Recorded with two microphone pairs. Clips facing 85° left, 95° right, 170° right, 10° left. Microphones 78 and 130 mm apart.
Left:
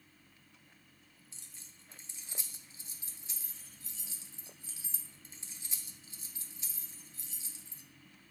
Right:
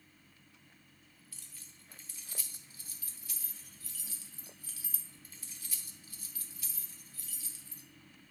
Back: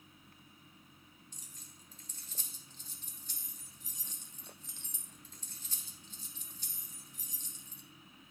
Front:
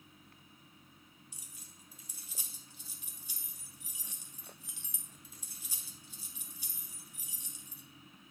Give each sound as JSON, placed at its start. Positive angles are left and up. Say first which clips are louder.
{"t": 1.3, "sound": "keys jangling", "louder": "right 1 dB, even", "azimuth_deg": 85, "distance_m": 0.7}